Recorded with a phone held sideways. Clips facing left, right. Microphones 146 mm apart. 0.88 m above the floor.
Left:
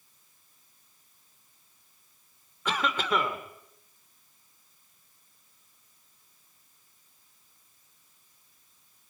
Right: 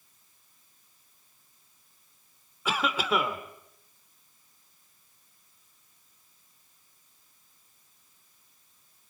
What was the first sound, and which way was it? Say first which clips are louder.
A cough: right 1 dB; 5° right (ahead or behind).